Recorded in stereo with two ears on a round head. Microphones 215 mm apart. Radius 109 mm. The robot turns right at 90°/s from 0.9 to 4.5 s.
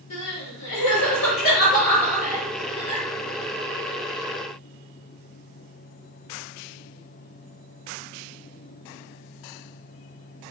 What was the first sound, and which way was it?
Crying, 70° left (ahead or behind).